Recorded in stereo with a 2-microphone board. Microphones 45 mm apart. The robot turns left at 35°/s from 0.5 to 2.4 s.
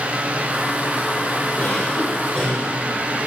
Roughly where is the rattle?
No rattle in this recording.